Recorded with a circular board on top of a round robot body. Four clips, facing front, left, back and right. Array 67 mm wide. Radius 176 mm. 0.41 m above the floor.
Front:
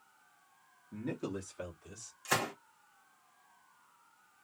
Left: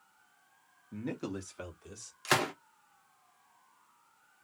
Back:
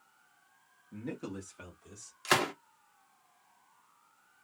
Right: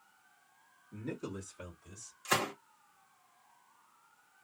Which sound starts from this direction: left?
A man speaking, at 0.9 s.